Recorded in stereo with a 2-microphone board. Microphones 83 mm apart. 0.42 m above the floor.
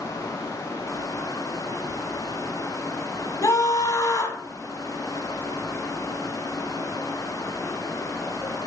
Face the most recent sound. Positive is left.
turn(degrees=40)  # may be behind; listen again after turning